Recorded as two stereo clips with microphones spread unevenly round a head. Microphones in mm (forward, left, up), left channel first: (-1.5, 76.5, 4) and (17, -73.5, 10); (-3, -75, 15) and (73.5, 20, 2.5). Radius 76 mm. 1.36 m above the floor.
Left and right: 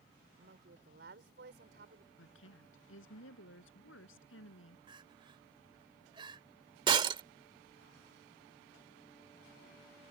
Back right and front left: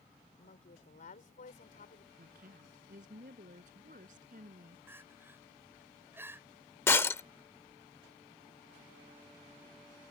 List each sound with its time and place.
0.4 s a woman speaking: 110° right
2.2 s a woman speaking: 95° left
4.9 s crying: 20° right
6.9 s breaking glass: 95° right